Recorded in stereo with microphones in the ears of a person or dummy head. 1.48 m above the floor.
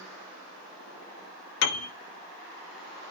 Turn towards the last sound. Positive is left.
turn(degrees=75)  # may be behind; listen again after turning